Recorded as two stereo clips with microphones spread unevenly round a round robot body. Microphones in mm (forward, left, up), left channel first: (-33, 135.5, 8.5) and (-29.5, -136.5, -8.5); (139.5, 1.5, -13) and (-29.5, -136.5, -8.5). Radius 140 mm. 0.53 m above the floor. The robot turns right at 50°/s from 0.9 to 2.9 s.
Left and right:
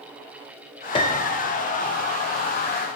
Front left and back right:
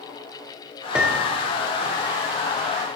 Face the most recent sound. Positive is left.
turn(degrees=-125)